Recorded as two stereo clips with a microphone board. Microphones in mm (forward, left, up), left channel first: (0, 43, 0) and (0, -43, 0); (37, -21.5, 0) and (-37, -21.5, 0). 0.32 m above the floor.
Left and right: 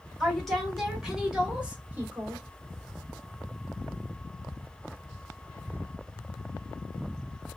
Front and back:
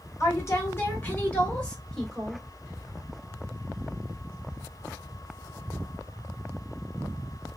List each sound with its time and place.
0.2 s a woman speaking: 10° left, 1.4 m; by 2.4 s 100° right, 1.2 m